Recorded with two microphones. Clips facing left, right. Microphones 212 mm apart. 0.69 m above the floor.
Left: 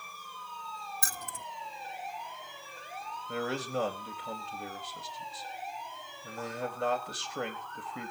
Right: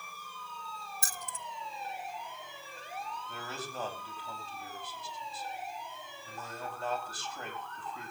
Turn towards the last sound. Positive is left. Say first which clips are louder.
# left 14 dB
turn(degrees=75)  # may be behind; listen again after turning